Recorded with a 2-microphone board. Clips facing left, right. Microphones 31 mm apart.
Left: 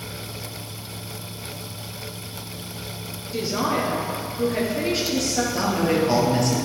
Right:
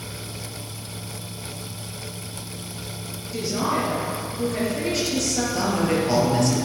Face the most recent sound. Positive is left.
turn(degrees=5)  # may be behind; listen again after turning